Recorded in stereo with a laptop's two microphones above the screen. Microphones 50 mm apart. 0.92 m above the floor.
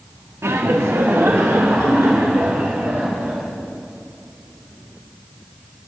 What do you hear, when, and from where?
0.4 s laughter: 75° right (ahead or behind), 1.6 m; by 3.5 s 50° right (ahead or behind), 4.5 m